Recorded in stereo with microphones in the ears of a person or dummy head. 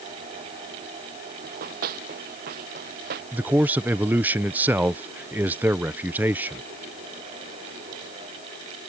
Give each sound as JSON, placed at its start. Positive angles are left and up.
{"t": 1.4, "sound": "running footsteps", "side_deg": -50}
{"t": 3.3, "sound": "a man speaking", "side_deg": -10}